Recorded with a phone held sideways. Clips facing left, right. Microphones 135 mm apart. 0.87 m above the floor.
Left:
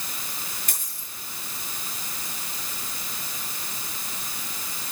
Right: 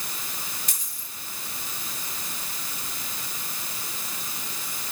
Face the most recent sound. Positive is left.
turn(degrees=55)  # may be behind; listen again after turning